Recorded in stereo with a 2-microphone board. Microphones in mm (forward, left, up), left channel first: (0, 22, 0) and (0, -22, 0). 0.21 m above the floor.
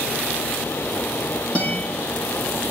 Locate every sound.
1.6 s a guitar: 30° left (ahead or behind), 9.5 m